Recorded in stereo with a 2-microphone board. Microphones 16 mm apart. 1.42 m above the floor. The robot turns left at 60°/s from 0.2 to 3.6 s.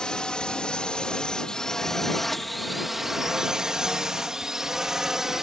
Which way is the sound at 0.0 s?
55° left (ahead or behind).